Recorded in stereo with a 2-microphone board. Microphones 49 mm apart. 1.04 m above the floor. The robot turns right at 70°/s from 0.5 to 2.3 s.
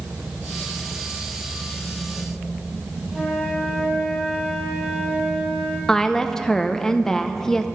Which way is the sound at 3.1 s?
10° right (ahead or behind).